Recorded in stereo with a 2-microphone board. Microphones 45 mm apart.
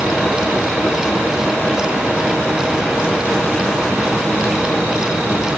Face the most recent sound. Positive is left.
No sound to turn to.